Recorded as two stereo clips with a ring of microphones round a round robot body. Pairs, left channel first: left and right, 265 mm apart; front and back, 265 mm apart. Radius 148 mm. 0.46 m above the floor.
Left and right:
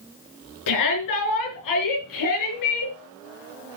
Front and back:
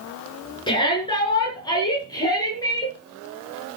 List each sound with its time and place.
0.7 s a shout: 75° left, 6 m; by 3.0 s 80° left, 7.5 m